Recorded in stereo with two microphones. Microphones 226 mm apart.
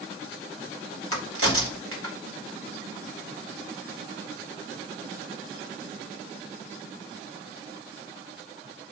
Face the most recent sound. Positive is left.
turn(degrees=-75)  # may be behind; listen again after turning